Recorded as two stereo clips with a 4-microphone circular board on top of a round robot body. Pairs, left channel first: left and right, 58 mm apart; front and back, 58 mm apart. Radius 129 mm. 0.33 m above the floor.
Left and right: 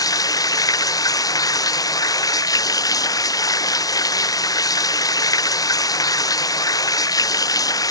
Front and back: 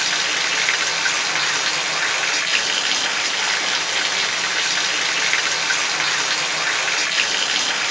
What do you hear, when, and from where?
0.0 s running water: 90° left